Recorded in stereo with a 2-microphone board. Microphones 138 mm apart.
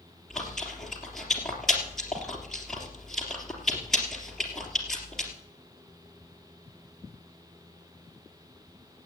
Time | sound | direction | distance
0.3 | chewing | centre (ahead or behind) | 3.5 m